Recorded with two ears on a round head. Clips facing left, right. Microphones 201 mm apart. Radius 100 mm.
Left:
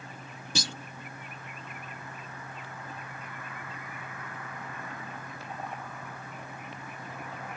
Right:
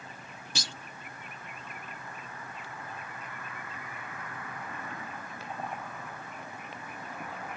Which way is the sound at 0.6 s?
75° left (ahead or behind).